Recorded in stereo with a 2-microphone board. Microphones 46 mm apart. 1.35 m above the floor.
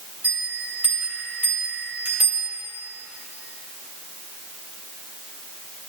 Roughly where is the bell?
Right.